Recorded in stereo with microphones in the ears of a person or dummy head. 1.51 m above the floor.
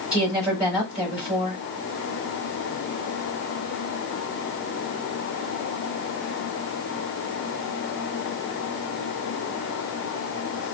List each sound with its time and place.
0.1 s a woman speaking: centre (ahead or behind), 4.5 m